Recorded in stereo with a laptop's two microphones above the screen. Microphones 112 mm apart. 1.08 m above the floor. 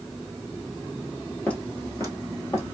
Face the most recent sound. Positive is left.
turn(degrees=35)  # may be behind; listen again after turning